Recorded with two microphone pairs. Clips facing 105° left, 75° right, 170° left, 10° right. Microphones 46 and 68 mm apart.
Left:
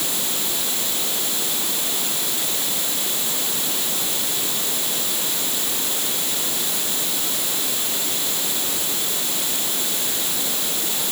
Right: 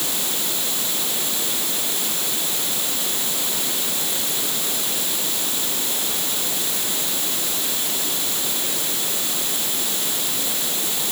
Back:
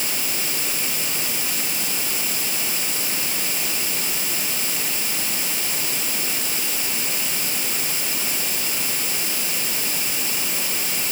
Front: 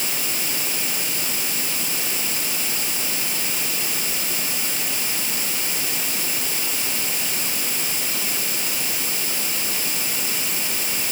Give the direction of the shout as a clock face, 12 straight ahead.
No shout in this recording.